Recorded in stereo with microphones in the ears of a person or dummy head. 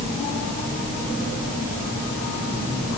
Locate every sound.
Only background noise.